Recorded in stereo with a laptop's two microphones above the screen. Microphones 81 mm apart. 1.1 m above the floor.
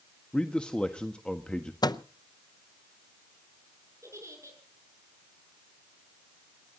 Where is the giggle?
35° right (ahead or behind), 8 m.